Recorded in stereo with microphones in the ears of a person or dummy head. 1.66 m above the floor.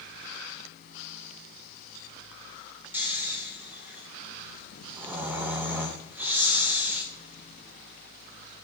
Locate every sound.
2.9 s snoring: 10° right (ahead or behind), 1.1 m